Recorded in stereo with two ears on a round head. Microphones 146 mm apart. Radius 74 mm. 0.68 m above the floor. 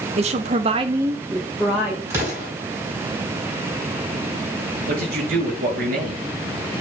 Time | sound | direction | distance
0.2 | a woman speaking | 45° right (ahead or behind) | 1.2 m
2.1 | an explosion | 20° right (ahead or behind) | 4.5 m
4.9 | a man speaking | 60° right (ahead or behind) | 4.5 m